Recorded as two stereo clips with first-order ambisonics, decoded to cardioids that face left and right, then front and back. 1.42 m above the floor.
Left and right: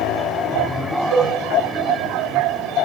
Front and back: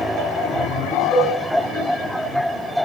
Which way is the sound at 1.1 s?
65° right.